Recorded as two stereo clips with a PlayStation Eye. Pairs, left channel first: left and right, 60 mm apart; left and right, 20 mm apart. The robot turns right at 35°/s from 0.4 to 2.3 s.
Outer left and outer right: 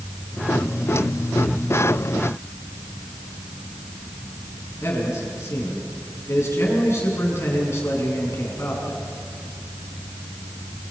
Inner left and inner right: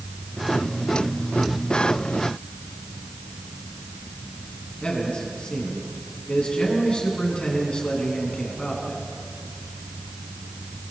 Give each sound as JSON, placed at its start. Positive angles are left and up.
{"t": 4.8, "sound": "a man speaking", "side_deg": 50, "distance_m": 7.0}